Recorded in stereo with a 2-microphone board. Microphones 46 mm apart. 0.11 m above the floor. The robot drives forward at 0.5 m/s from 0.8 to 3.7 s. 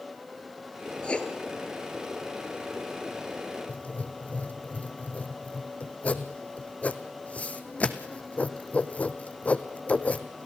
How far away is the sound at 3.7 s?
About 1.2 m.